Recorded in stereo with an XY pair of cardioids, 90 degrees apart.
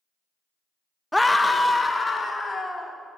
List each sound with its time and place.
1.1 s a scream: 10° left, 0.6 m; by 3.0 s 30° left, 3.5 m